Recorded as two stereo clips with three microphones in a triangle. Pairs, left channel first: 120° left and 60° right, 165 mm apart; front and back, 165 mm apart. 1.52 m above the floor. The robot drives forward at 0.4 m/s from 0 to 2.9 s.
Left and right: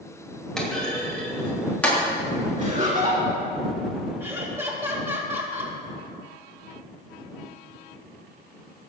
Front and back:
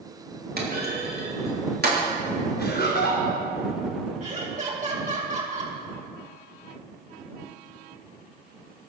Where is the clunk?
155° right, 2.5 m; by 2.0 s 160° right, 3.5 m.